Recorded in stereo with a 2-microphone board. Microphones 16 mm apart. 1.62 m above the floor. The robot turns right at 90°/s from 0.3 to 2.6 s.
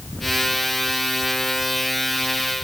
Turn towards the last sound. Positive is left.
No sound to turn to.